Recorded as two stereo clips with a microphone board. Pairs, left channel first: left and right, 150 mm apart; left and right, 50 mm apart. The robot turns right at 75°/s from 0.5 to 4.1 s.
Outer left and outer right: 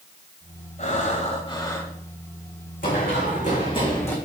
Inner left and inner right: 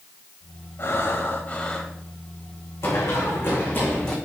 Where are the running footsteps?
70° left (ahead or behind), 4 m; by 4.2 s 15° left (ahead or behind), 3.5 m.